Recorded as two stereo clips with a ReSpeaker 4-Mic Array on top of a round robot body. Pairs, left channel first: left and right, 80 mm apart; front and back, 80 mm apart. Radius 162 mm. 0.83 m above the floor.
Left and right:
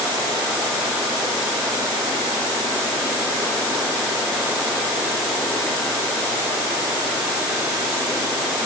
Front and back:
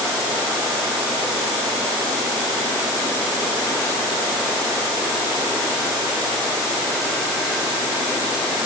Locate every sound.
Only background noise.